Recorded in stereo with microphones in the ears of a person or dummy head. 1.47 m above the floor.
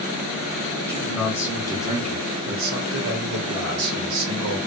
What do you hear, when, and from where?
0.9 s a man speaking: centre (ahead or behind), 1.2 m; by 4.6 s 70° right (ahead or behind), 1.5 m